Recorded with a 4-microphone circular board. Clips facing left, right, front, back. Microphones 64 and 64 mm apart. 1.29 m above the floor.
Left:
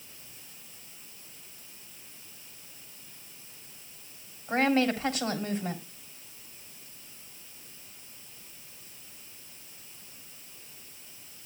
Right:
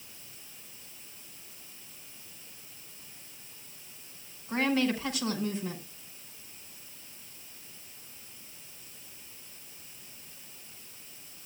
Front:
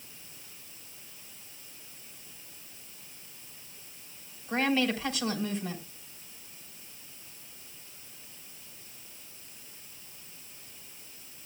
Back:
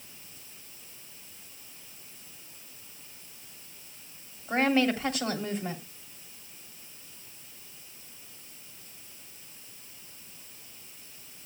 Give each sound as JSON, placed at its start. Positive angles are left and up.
{"t": 4.5, "sound": "a woman speaking", "azimuth_deg": 130, "distance_m": 3.5}